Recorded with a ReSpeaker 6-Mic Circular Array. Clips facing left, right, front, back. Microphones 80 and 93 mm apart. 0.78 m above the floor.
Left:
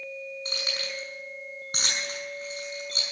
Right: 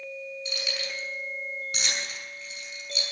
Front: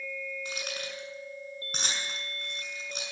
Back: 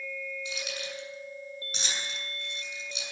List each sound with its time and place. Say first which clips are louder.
0.5 s keys jangling: even, even; 40° left, 5.5 m